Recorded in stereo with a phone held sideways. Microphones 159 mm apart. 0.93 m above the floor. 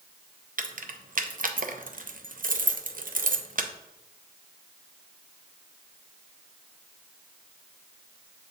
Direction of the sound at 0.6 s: 60° right (ahead or behind).